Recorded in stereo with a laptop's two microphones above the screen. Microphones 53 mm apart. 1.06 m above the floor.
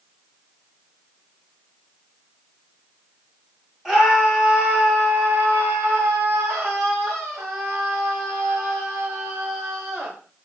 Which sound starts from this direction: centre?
A scream, at 3.9 s.